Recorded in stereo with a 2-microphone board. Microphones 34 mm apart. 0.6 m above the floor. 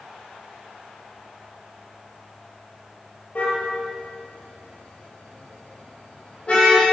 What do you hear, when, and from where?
3.4 s a car horn: 40° left (ahead or behind), 6 m; by 6.9 s 30° left (ahead or behind), 10 m